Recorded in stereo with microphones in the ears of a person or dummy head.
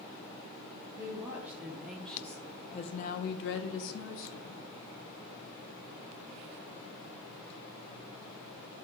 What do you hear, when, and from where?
1.0 s a woman speaking: 15° right (ahead or behind), 1.2 m; by 4.7 s 65° left (ahead or behind), 1.0 m